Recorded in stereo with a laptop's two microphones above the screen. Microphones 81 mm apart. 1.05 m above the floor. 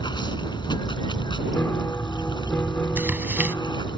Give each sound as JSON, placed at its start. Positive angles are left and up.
{"t": 0.0, "sound": "running water", "side_deg": 65}
{"t": 1.5, "sound": "a piano", "side_deg": 25}
{"t": 3.0, "sound": "tearing paper", "side_deg": -20}